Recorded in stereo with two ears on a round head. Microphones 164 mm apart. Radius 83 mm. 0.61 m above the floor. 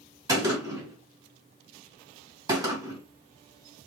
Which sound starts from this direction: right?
A gunshot, at 0.3 s.